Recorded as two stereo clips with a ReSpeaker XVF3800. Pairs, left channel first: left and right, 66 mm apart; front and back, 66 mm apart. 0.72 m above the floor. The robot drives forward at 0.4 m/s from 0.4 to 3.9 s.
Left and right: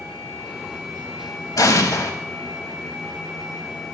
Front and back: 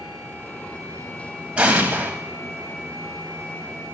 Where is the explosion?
110° left, 1.0 m; by 2.1 s 120° left, 1.1 m.